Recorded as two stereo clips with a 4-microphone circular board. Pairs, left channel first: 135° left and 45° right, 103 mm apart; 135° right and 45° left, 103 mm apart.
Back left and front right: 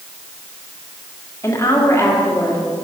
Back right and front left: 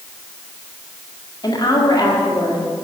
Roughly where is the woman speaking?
Behind.